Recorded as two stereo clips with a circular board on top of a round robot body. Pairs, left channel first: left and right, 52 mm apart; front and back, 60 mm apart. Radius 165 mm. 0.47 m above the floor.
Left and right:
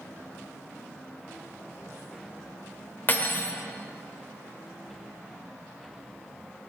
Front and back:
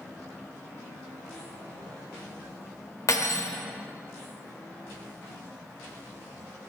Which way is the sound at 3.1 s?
35° left.